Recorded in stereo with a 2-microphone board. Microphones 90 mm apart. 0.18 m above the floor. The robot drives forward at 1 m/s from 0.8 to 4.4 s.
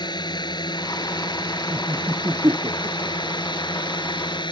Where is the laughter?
25° right (ahead or behind); by 3.4 s 50° right (ahead or behind).